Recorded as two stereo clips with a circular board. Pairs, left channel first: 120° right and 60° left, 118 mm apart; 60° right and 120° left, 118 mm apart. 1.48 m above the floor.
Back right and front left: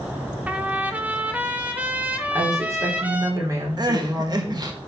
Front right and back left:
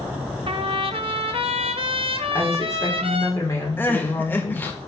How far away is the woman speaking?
About 3.5 m.